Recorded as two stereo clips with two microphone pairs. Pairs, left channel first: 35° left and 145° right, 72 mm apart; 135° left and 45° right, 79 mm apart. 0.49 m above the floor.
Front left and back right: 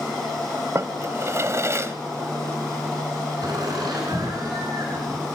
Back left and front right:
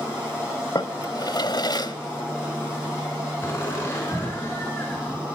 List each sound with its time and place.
0.8 s a drawer: 165° left, 1.1 m
3.4 s laughter: 170° right, 4.5 m